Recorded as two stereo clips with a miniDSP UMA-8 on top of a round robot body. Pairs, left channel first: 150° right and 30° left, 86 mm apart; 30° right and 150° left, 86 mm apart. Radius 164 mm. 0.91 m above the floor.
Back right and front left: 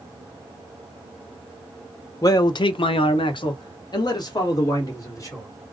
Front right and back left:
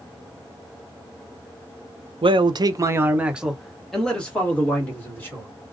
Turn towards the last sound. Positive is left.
turn(degrees=-100)